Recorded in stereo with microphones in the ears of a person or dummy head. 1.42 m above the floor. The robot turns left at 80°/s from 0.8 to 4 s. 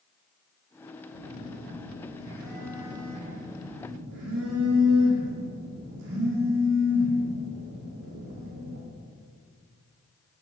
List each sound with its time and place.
1.1 s a phone buzzing: 110° left, 1.3 m; by 8.8 s 120° right, 1.3 m